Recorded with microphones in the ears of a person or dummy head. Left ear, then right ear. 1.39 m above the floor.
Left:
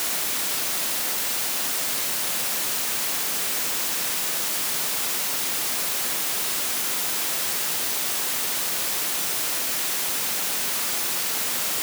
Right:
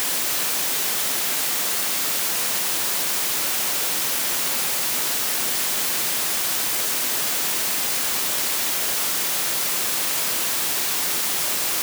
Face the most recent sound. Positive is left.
No sound to turn to.